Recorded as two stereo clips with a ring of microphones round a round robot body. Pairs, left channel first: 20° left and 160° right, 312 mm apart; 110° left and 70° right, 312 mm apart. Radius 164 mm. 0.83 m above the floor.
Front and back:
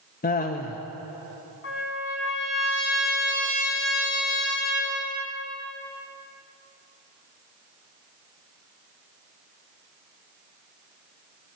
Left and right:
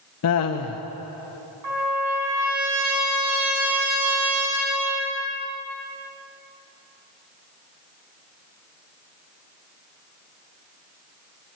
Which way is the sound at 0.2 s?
80° left.